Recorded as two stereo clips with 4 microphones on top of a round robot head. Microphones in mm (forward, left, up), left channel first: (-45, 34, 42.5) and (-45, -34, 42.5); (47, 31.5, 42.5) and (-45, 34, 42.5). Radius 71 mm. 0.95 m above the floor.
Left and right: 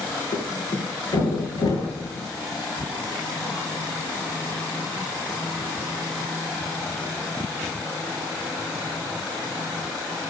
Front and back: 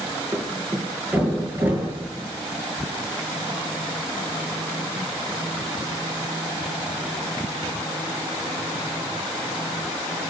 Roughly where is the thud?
Left.